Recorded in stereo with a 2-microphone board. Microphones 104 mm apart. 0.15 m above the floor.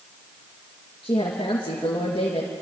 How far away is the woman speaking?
About 2 m.